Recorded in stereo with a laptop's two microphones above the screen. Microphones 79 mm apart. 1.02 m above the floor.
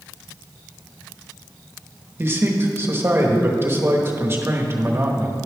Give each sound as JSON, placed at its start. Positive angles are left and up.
{"t": 2.2, "sound": "a man speaking", "side_deg": -30, "distance_m": 1.1}